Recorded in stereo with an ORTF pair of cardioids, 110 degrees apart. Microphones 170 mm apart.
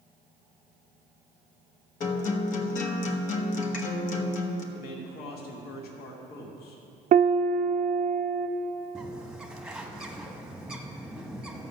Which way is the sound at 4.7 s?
70° left.